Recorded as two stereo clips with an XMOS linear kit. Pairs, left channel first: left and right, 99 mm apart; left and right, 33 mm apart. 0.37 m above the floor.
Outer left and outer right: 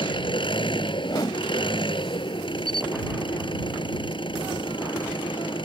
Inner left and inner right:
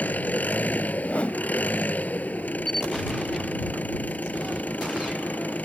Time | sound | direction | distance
0.0 | an engine running | 55° left (ahead or behind) | ?
1.0 | a whoosh | 45° left (ahead or behind) | ?
2.7 | a camera shutter | 5° left (ahead or behind) | ?